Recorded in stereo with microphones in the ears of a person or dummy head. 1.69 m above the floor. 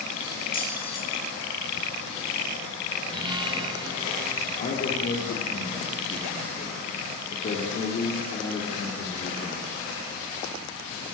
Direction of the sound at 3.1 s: 20° right (ahead or behind).